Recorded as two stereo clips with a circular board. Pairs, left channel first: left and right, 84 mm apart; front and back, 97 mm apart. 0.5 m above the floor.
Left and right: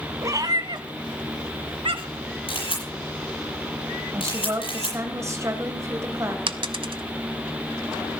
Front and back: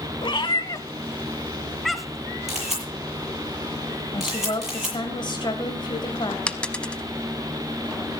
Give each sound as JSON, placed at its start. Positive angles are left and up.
{"t": 0.2, "sound": "a cat meowing", "azimuth_deg": -35, "distance_m": 1.2}
{"t": 2.5, "sound": "a camera shutter", "azimuth_deg": 95, "distance_m": 8.0}
{"t": 4.1, "sound": "a woman speaking", "azimuth_deg": -35, "distance_m": 3.0}
{"t": 6.5, "sound": "a dropped coin", "azimuth_deg": -80, "distance_m": 0.8}